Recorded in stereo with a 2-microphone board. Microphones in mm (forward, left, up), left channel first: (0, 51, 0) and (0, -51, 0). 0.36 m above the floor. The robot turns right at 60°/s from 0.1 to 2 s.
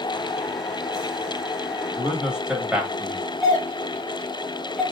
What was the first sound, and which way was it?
A man speaking, 10° right (ahead or behind).